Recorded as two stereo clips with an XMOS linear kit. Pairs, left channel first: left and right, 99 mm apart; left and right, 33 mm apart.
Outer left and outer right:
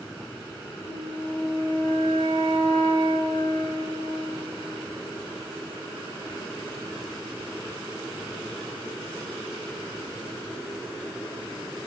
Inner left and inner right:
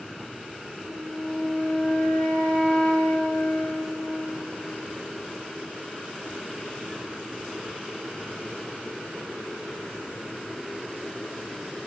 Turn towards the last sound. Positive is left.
turn(degrees=80)